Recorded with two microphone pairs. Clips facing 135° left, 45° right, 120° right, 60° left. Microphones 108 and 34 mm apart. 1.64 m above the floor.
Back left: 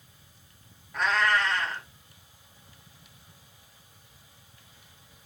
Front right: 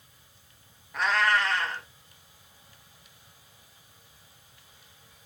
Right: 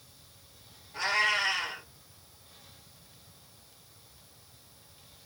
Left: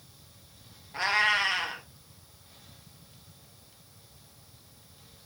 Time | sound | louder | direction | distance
0.9 | a cat meowing | even, left 2 dB | 45° left | 0.9 m